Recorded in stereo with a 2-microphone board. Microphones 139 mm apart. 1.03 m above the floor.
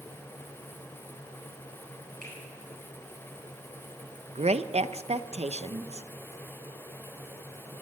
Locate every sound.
2.2 s a finger snap: 80° right, 9.5 m
4.3 s a woman speaking: 50° right (ahead or behind), 0.7 m